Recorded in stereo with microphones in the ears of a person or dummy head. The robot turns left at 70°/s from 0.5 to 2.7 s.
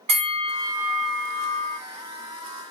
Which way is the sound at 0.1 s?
140° right.